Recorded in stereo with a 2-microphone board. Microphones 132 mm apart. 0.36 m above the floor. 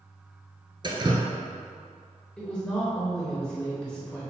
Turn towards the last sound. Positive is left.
turn(degrees=10)  # may be behind; listen again after turning